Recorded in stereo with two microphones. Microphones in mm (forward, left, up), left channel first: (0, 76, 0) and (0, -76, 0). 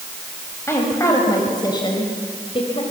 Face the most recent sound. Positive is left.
turn(degrees=40)  # may be behind; listen again after turning